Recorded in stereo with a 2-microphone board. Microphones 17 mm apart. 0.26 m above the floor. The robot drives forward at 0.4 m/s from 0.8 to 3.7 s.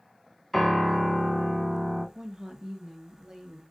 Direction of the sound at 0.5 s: 5° left (ahead or behind).